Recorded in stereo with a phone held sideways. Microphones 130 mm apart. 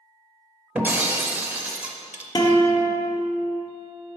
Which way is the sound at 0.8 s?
15° right (ahead or behind).